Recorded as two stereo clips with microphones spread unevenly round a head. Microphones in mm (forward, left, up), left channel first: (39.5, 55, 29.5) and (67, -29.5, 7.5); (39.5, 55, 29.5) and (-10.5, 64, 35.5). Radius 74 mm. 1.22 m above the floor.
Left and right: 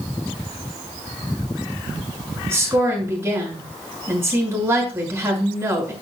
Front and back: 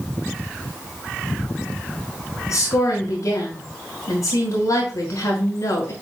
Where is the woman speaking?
10° right, 5.5 m.